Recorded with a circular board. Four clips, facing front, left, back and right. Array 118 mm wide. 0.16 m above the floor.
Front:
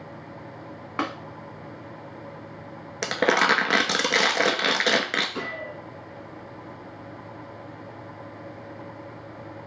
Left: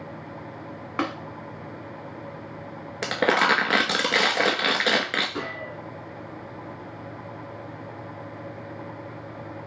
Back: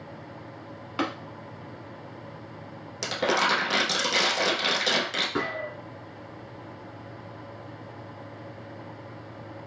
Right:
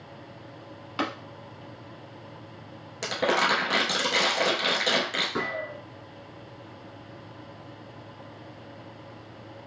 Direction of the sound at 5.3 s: 150° right.